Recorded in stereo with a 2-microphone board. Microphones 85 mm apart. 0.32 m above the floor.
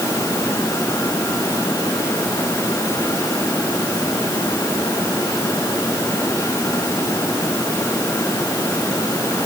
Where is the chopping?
I don't hear chopping.